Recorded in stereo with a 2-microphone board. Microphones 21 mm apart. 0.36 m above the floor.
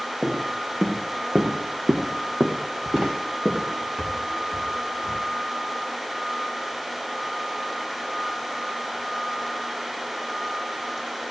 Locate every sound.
0.2 s footsteps: 75° right (ahead or behind), 1.7 m; by 5.2 s 30° right (ahead or behind), 2.5 m